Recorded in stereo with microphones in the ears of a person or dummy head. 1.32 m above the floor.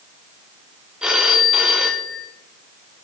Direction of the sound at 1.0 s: 10° right (ahead or behind).